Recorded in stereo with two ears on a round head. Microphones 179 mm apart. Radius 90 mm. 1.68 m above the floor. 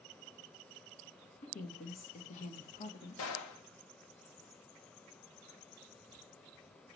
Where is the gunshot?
85° left, 2.5 m.